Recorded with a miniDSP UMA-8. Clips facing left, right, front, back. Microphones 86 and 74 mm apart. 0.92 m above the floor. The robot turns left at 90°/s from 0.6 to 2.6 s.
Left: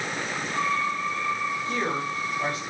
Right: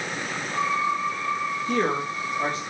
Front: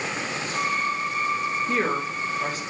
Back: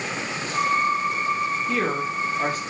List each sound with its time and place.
1.7 s a woman speaking: 75° right, 3.5 m; by 2.6 s 155° right, 3.5 m